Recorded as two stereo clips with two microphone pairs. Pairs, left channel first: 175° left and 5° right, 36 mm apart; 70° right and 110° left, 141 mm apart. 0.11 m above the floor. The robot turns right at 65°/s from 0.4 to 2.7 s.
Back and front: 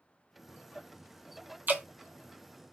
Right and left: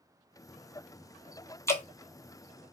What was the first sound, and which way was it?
Dripping, straight ahead.